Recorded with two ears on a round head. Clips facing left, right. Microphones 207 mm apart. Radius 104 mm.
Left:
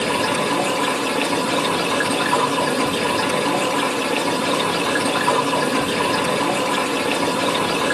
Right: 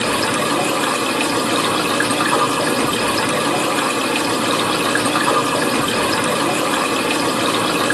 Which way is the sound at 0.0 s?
60° right (ahead or behind).